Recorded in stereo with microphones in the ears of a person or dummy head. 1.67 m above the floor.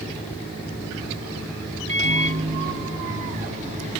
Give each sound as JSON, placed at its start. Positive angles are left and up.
{"t": 1.9, "sound": "a microwave", "side_deg": -45, "distance_m": 1.0}